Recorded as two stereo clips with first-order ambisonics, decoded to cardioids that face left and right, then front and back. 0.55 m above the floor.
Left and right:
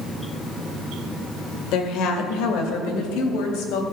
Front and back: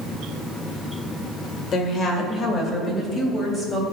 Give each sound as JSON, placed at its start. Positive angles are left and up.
{"t": 1.7, "sound": "a woman speaking", "azimuth_deg": 60, "distance_m": 1.8}